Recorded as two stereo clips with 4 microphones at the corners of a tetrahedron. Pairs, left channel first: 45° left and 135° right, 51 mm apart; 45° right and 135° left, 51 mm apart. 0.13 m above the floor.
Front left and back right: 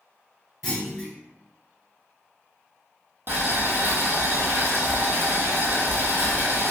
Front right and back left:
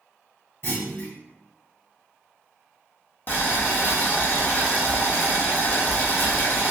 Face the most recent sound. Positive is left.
turn(degrees=-90)